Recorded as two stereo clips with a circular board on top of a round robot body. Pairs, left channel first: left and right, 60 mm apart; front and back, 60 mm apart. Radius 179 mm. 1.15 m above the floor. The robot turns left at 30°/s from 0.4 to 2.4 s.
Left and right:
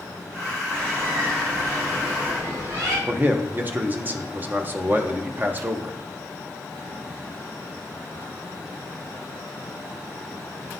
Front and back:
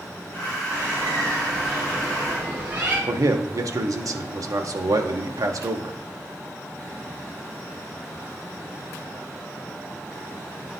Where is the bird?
60° right, 3 m; by 3.0 s 110° right, 3 m.